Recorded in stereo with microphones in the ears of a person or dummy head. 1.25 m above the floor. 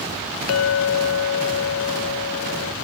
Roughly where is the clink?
Left.